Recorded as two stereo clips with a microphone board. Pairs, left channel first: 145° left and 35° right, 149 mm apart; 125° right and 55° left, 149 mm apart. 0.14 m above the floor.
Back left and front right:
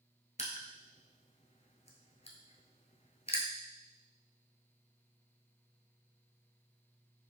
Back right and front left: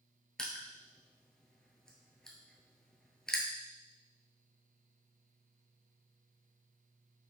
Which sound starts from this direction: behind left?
Crushing, at 0.4 s.